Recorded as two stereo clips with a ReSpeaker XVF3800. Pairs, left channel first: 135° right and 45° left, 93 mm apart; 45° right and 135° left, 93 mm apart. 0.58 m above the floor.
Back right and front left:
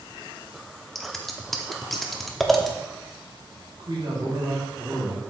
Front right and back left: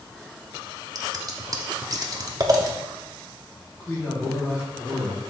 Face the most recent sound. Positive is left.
turn(degrees=15)